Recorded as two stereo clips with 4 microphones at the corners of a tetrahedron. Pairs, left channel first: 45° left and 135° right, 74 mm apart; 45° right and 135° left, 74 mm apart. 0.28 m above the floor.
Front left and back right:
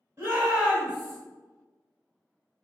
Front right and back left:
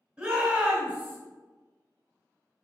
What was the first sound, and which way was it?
A shout, 165° right.